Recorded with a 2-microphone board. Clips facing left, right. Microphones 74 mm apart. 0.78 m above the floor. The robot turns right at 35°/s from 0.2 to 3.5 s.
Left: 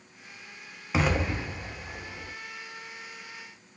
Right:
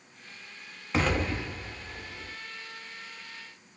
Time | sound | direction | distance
0.9 | an explosion | 5° left (ahead or behind) | 0.6 m